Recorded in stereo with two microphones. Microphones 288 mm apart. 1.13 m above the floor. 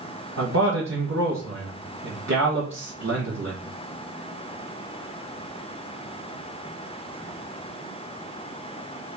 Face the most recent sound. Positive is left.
turn(degrees=-65)  # may be behind; listen again after turning